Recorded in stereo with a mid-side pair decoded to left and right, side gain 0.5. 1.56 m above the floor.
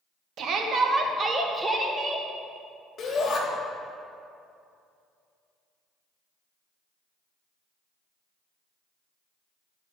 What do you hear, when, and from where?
0.4 s a shout: 60° right, 1.4 m; by 2.3 s 5° right, 1.7 m
3.0 s a shout: 40° left, 2.5 m